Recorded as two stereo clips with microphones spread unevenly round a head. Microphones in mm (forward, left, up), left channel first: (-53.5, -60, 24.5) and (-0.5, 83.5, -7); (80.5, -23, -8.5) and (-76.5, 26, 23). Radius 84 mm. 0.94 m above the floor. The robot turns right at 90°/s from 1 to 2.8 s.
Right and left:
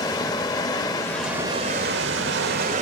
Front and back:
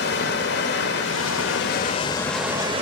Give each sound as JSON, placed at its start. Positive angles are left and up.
{"t": 0.0, "sound": "running water", "azimuth_deg": -45, "distance_m": 1.1}